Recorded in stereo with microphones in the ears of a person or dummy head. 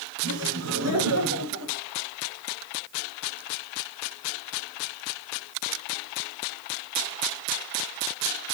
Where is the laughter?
80° right, 4.5 m; by 1.7 s 85° right, 6 m.